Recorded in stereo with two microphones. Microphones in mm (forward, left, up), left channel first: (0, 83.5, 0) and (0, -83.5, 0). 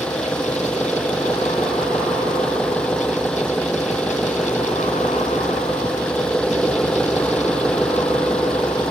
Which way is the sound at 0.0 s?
5° left (ahead or behind).